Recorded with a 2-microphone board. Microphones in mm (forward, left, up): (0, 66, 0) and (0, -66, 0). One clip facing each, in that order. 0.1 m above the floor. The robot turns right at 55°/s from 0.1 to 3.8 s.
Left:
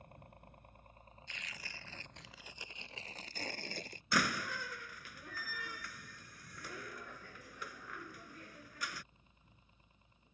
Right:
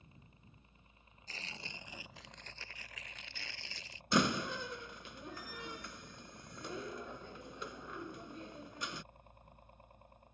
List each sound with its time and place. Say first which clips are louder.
0.0 s a helicopter: left 6 dB; 60° left (ahead or behind); by 10.3 s 60° right (ahead or behind)
1.3 s tearing paper: right 3 dB; 55° right; by 4.0 s 85° left
4.1 s a door slam: right 4 dB; 25° right (ahead or behind)